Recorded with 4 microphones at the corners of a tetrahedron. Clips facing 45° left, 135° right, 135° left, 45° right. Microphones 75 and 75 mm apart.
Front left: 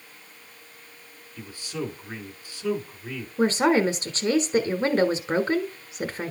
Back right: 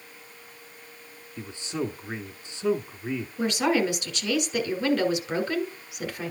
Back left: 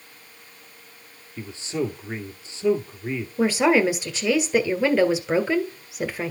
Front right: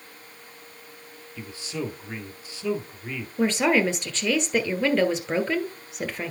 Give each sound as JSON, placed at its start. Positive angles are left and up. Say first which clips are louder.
{"t": 1.4, "sound": "a man speaking", "louder": "back right 2 dB, back left 5 dB", "azimuth_deg": 175, "distance_m": 1.6}
{"t": 3.4, "sound": "a woman speaking", "louder": "front left 4 dB, back left 3 dB", "azimuth_deg": 60, "distance_m": 1.4}